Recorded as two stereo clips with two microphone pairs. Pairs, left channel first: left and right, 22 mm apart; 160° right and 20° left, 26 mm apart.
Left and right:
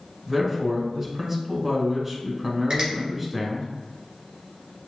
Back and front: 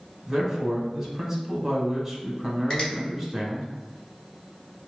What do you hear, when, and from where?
0.3 s a man speaking: 55° right, 1.0 m
2.7 s a finger snap: 115° right, 1.7 m